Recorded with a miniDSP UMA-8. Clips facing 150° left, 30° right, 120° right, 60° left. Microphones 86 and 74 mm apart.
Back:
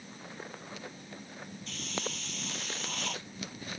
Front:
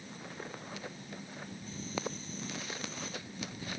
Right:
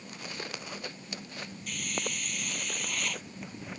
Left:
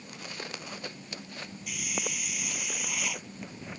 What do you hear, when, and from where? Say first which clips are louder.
1.7 s a hiss: even, even; 140° left